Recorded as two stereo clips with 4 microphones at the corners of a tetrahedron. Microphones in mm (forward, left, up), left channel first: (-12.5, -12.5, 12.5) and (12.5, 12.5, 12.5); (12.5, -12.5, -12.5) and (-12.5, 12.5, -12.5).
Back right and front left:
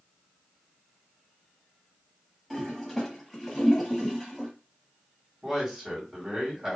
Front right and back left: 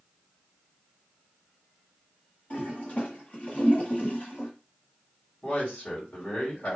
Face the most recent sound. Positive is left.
turn(degrees=-15)